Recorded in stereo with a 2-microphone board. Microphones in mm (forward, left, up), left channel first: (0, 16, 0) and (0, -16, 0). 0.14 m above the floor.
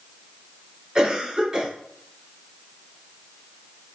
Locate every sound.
0.9 s a cough: 20° right (ahead or behind), 1.5 m